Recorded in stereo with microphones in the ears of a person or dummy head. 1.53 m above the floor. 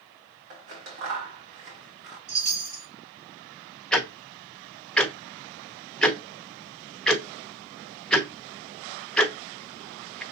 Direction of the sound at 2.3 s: 50° right (ahead or behind).